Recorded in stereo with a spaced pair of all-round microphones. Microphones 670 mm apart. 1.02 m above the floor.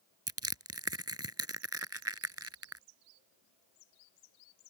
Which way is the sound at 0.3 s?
20° right (ahead or behind).